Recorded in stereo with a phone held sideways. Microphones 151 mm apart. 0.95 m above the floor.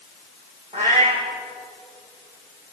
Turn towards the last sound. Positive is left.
turn(degrees=-45)  # may be behind; listen again after turning